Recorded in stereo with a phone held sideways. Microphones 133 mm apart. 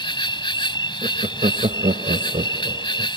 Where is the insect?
35° left (ahead or behind).